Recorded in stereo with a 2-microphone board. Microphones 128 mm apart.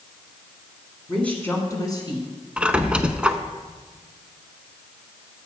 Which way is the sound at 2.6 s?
10° right (ahead or behind).